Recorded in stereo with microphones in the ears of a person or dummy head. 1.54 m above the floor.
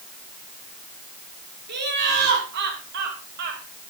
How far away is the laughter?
About 5 m.